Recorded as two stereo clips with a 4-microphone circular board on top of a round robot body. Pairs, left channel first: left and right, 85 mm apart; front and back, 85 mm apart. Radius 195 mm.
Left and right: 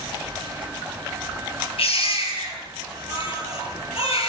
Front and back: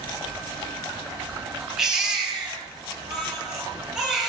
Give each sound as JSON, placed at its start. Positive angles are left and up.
{"t": 1.8, "sound": "a baby crying", "azimuth_deg": 95, "distance_m": 9.5}